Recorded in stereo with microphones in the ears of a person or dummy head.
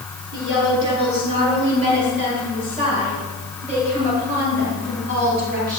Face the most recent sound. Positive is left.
turn(degrees=-50)  # may be behind; listen again after turning